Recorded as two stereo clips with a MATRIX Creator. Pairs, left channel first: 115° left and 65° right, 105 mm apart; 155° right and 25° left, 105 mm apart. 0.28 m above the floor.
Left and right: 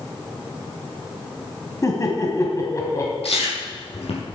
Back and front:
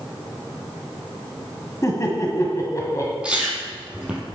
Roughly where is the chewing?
Left.